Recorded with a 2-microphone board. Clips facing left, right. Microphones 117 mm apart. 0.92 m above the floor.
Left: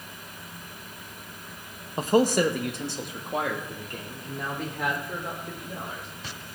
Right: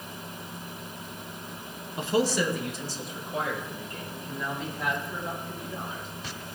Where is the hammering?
I don't hear hammering.